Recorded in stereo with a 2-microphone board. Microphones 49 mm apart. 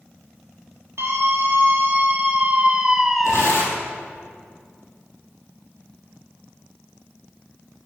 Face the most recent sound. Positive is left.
turn(degrees=75)  # may be behind; listen again after turning